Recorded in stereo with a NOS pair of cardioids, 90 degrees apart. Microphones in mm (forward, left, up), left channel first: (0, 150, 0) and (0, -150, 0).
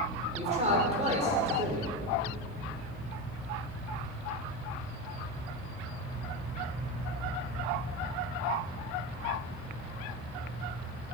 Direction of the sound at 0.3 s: 20° right.